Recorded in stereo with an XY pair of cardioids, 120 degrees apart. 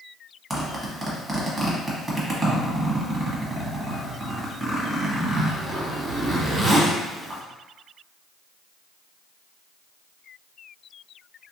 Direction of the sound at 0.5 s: 20° right.